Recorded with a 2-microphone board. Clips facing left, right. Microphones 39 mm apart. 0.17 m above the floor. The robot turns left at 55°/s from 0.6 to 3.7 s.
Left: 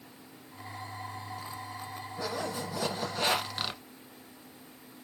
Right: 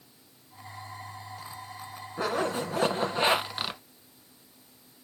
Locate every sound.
2.2 s a zipper: 80° right, 0.8 m; by 3.8 s 165° right, 0.8 m